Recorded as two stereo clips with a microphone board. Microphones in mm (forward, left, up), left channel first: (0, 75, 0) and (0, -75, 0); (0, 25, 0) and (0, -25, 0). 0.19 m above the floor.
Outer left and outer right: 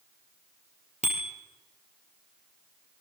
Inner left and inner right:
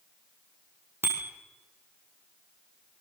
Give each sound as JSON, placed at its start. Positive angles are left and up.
{"t": 1.0, "sound": "a bicycle bell", "side_deg": -50, "distance_m": 4.5}